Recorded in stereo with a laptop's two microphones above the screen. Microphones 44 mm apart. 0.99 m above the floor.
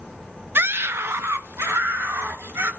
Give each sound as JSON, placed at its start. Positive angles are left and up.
{"t": 0.6, "sound": "a scream", "side_deg": -55, "distance_m": 0.8}